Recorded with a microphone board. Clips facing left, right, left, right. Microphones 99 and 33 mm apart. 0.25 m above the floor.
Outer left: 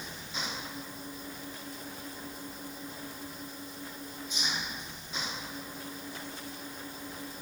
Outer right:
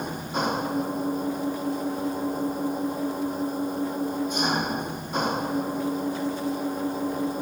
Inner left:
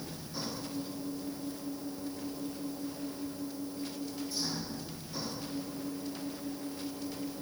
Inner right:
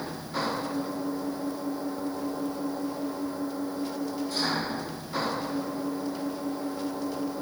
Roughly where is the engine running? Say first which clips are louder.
Outer right 13 dB, inner right 9 dB; right.